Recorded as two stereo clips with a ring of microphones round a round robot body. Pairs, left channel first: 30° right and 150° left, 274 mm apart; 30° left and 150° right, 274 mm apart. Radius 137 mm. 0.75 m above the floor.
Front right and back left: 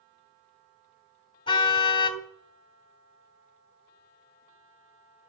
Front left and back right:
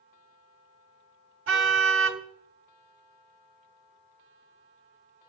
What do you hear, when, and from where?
1.5 s a car horn: 105° right, 2.5 m